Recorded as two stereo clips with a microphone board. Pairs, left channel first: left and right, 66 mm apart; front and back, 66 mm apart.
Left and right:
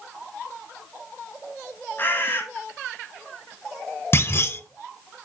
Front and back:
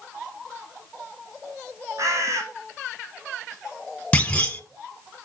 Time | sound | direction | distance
2.0 | a bird | 145° left | 1.6 m
4.1 | a clunk | 60° left | 1.0 m